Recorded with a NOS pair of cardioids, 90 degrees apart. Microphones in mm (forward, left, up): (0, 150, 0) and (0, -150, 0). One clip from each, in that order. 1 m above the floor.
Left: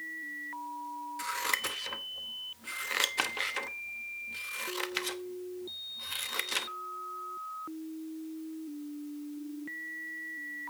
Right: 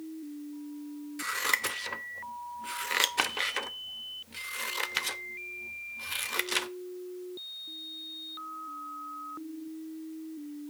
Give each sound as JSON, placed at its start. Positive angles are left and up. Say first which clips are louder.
{"t": 1.2, "sound": "scissors", "louder": "right 3 dB", "azimuth_deg": -15, "distance_m": 0.9}